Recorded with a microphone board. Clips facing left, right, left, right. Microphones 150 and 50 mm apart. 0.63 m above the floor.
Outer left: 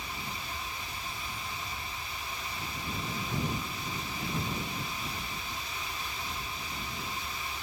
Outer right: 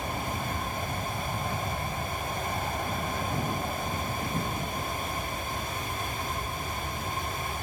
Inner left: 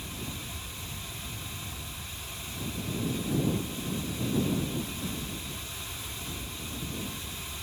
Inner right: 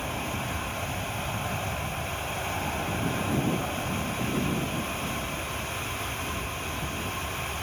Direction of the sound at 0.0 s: 65° right (ahead or behind).